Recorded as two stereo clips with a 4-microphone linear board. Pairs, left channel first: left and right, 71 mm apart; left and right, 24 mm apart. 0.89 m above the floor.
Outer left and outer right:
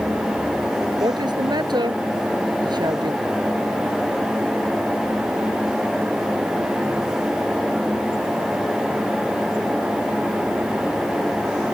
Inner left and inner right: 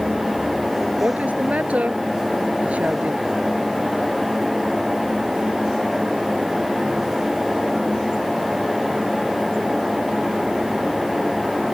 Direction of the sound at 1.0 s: 85° right.